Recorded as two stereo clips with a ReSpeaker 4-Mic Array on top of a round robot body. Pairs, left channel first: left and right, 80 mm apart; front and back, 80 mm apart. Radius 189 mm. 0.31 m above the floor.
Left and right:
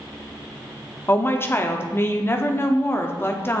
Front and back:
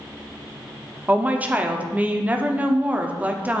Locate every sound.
1.1 s a woman speaking: 125° left, 1.0 m